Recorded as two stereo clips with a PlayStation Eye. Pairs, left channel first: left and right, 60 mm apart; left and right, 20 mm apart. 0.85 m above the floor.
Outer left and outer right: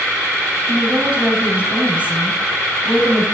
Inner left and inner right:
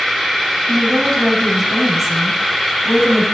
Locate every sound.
0.7 s a woman speaking: 20° right (ahead or behind), 7.5 m